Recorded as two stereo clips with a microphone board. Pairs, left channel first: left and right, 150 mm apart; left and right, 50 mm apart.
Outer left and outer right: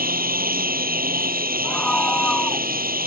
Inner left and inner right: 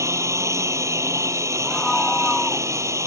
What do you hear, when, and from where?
0.0 s a lawn mower: 80° right
1.6 s a scream: 5° left (ahead or behind)